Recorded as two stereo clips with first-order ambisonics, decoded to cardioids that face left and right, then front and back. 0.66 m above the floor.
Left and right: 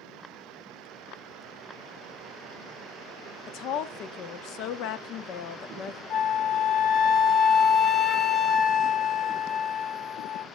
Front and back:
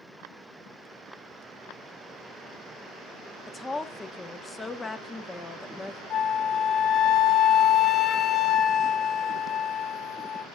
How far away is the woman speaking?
About 0.7 m.